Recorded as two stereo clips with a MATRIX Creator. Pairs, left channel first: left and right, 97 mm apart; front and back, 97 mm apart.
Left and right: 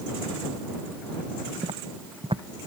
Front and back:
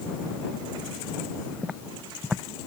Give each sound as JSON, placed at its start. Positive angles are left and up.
{"t": 1.6, "sound": "footsteps", "azimuth_deg": -100}